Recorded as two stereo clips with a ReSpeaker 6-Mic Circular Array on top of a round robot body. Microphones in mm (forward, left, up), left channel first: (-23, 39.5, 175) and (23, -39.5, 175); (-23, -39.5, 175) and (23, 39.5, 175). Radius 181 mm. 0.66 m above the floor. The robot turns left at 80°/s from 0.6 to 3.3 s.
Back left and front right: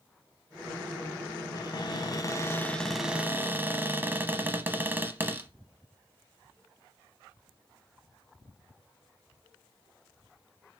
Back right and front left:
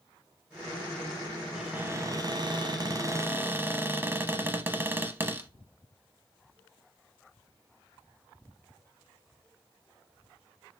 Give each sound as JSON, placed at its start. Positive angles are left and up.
{"t": 1.6, "sound": "a cupboard door", "azimuth_deg": 140, "distance_m": 0.8}